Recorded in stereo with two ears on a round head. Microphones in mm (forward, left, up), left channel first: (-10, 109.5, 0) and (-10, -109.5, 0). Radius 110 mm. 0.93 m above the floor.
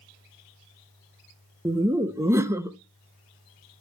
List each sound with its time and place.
1.6 s laughter: 10° right (ahead or behind), 0.6 m